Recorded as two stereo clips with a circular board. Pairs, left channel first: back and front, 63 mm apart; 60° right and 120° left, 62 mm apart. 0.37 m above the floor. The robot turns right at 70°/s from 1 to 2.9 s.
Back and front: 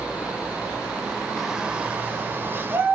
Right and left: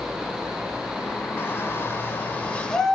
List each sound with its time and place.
1.4 s a shout: 85° right, 1.7 m; by 3.0 s 20° left, 1.7 m